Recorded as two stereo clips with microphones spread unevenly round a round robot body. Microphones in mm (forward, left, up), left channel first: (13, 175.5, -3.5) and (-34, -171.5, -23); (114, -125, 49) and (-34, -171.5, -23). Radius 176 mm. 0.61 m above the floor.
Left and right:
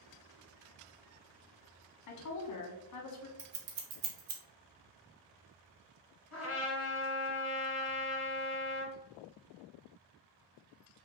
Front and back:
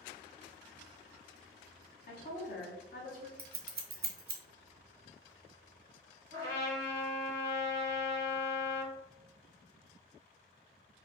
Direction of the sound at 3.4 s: 125° right.